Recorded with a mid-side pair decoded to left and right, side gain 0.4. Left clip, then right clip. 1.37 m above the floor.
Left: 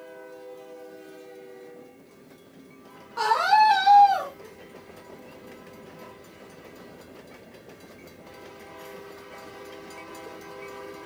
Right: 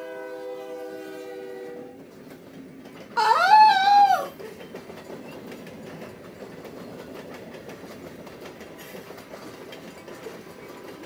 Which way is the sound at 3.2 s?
60° right.